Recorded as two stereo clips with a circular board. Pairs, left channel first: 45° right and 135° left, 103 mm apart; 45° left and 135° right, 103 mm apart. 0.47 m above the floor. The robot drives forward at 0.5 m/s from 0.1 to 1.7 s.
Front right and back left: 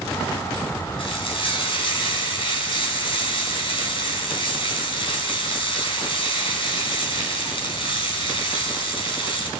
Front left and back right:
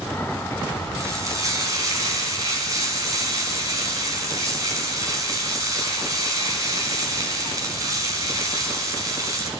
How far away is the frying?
About 5.5 m.